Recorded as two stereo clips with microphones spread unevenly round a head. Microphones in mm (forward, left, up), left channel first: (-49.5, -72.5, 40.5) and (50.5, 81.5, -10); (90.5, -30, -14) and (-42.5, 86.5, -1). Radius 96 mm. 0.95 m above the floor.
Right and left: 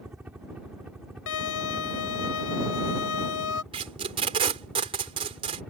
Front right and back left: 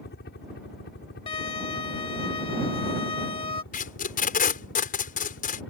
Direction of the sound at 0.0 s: 25° right.